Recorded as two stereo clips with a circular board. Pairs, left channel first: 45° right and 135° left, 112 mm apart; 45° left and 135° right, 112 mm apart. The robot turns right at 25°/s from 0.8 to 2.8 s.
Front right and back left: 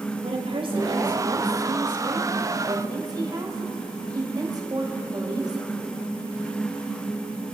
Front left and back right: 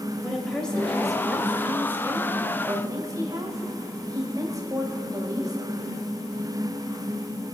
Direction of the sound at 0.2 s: 125° left.